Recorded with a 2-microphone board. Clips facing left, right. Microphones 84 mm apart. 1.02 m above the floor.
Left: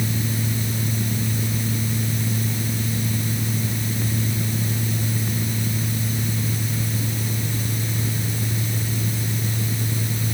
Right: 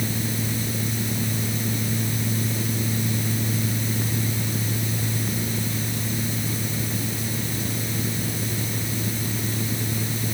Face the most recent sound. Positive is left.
No sound to turn to.